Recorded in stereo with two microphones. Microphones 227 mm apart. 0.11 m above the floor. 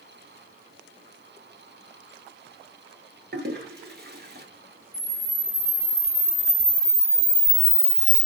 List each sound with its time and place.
3.3 s a toilet flushing: 45° right (ahead or behind), 0.8 m
4.9 s a camera shutter: 50° right (ahead or behind), 2.5 m